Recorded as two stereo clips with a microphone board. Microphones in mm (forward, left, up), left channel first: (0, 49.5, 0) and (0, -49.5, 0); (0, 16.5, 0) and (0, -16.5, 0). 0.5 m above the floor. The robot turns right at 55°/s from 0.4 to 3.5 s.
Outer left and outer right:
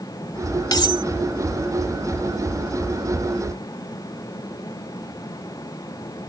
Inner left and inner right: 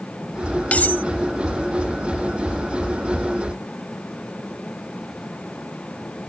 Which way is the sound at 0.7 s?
45° left (ahead or behind).